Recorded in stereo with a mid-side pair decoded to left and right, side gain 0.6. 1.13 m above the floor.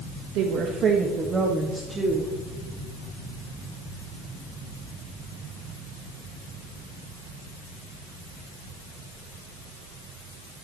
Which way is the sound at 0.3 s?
70° right.